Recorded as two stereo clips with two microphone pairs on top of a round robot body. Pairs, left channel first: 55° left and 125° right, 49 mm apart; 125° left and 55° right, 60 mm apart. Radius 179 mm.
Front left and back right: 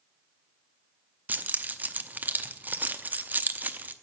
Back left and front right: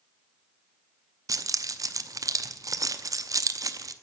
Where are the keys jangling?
70° right, 0.9 m.